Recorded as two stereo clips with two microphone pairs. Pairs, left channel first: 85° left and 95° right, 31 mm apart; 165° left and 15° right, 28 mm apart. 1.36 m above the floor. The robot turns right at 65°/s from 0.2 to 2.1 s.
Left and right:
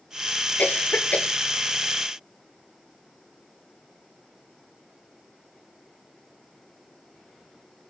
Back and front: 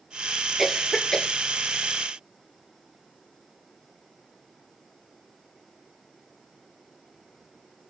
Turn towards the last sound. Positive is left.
turn(degrees=155)